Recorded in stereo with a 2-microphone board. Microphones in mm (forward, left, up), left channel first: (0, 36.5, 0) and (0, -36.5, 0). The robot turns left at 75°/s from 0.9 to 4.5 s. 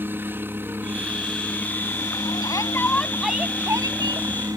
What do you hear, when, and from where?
0.0 s a helicopter: 145° right; by 4.6 s 55° right
2.4 s a shout: 60° left; by 4.3 s 85° right